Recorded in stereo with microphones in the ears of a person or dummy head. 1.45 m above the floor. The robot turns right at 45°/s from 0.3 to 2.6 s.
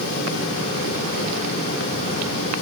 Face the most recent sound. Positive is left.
No sound to turn to.